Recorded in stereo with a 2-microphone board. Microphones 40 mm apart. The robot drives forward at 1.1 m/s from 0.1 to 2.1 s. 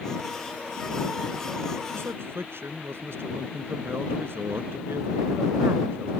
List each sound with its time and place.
1.9 s a man speaking: 80° right